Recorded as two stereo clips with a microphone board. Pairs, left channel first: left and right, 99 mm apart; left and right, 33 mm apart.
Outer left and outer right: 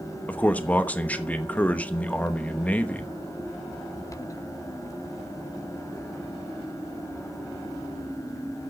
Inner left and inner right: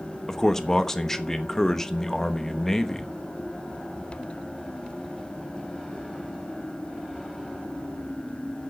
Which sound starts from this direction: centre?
A man speaking, at 0.3 s.